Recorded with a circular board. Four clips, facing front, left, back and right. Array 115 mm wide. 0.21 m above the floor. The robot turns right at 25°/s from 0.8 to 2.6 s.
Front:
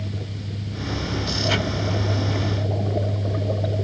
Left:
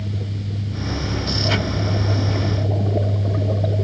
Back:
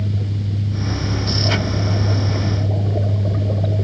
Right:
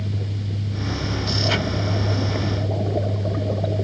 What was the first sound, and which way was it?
Only background noise.